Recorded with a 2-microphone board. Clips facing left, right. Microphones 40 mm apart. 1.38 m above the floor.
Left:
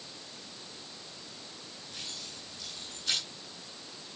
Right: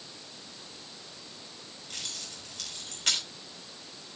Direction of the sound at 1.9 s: 70° right (ahead or behind).